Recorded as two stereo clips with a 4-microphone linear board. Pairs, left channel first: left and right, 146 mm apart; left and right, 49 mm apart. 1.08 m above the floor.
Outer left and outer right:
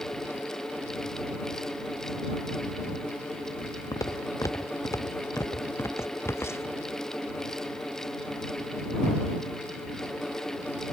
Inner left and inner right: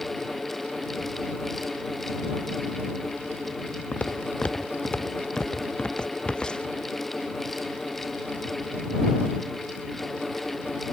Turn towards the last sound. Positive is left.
turn(degrees=15)  # may be behind; listen again after turning